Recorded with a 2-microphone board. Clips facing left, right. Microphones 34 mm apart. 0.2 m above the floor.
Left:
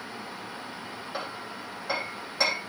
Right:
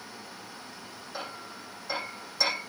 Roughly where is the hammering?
Left.